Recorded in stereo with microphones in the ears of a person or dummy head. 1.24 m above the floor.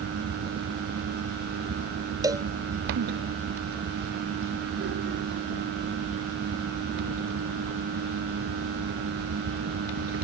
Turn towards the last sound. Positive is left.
turn(degrees=-20)  # may be behind; listen again after turning